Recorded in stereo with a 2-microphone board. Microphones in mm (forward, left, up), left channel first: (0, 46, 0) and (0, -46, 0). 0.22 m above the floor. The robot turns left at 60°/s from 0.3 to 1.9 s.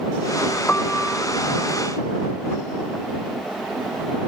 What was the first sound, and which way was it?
A piano, 20° left.